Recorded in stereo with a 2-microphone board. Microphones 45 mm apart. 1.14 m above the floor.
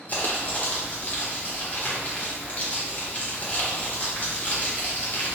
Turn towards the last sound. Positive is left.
turn(degrees=40)  # may be behind; listen again after turning